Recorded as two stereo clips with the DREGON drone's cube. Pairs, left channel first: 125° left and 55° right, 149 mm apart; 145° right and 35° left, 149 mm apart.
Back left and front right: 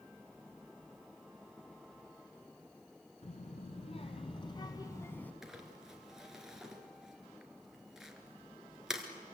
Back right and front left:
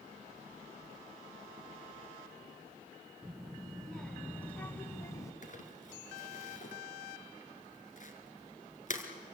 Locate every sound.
3.2 s a child speaking: 120° left, 1.6 m; by 5.3 s 170° right, 1.1 m
5.4 s crumpling: 140° right, 2.5 m